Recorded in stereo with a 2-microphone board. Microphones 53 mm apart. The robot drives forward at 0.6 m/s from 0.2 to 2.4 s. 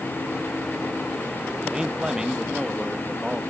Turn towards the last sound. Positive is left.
turn(degrees=-10)  # may be behind; listen again after turning